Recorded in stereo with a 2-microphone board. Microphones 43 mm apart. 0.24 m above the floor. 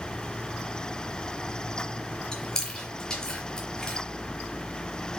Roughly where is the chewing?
Centre.